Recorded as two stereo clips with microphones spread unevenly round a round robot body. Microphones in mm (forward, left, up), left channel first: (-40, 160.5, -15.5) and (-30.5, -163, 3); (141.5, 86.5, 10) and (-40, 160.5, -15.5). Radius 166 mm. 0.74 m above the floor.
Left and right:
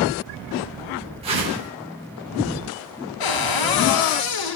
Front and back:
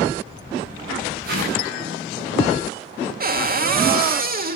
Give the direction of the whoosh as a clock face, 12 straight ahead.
5 o'clock.